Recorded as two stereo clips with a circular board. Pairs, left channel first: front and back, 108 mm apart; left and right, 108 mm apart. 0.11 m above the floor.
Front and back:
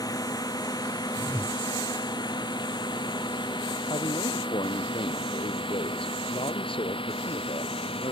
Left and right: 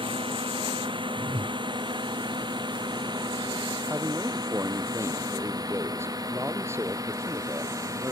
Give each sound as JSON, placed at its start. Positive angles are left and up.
{"t": 0.0, "sound": "a drone", "azimuth_deg": -50}
{"t": 1.2, "sound": "a whoosh", "azimuth_deg": -105}
{"t": 3.9, "sound": "a man speaking", "azimuth_deg": -25}